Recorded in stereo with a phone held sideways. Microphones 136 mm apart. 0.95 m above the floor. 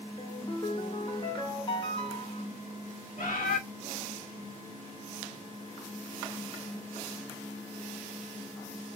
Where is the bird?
80° left, 1.6 m.